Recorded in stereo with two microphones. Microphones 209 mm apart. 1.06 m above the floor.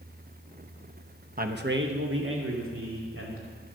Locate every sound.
1.4 s a man speaking: 40° right (ahead or behind), 0.9 m; by 3.8 s 90° right, 3 m